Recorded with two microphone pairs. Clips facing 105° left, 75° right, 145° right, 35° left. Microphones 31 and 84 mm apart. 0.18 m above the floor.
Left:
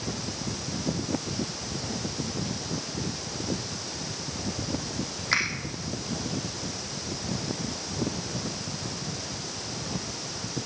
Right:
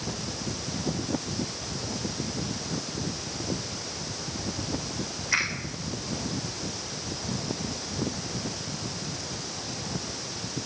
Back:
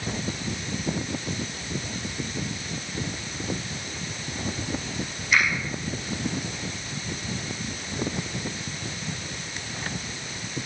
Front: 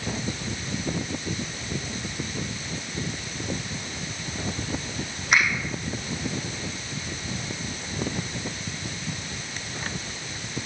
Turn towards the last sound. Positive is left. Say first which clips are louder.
# even, front 1 dB
turn(degrees=65)